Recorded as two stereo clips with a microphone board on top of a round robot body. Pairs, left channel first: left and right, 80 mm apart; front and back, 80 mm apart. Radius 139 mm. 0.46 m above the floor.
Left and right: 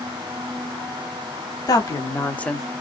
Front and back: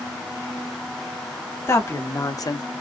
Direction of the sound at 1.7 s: 55° left.